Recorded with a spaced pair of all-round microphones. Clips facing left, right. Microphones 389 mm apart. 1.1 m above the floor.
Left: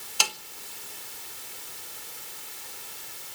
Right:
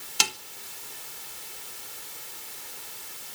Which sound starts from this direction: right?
A snare drum, at 0.2 s.